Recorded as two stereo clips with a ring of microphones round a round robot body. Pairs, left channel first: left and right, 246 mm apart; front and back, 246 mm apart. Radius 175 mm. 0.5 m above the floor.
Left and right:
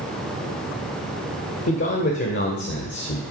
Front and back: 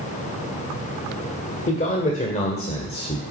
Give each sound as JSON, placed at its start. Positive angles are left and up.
{"t": 1.7, "sound": "a man speaking", "azimuth_deg": 55, "distance_m": 2.5}